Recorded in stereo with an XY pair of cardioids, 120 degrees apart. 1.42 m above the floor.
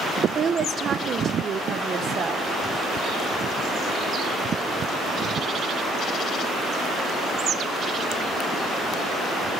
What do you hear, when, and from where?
0.3 s a woman speaking: 45° right, 0.8 m